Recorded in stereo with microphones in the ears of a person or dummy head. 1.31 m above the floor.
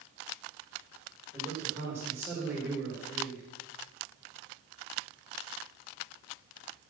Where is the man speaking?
5° right (ahead or behind), 5 m.